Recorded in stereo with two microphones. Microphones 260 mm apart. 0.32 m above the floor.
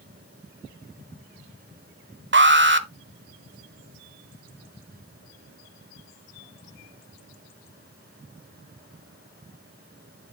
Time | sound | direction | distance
2.3 | an alarm | 45° right (ahead or behind) | 1.0 m